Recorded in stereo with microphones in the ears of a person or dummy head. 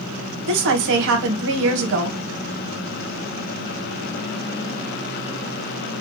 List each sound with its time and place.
0.5 s a woman speaking: 65° right (ahead or behind), 0.9 m